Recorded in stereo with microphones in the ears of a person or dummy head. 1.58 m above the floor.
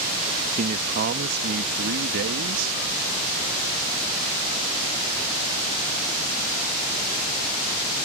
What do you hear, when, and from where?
0.6 s a man speaking: 45° right (ahead or behind); by 2.8 s 70° right (ahead or behind)